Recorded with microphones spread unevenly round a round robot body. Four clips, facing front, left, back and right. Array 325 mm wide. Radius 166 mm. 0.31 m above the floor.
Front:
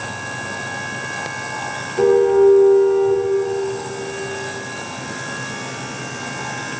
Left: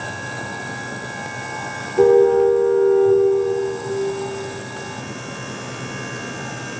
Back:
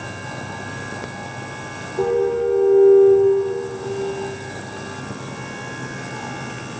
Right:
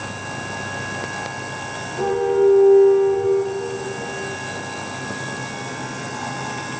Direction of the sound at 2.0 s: 60° left.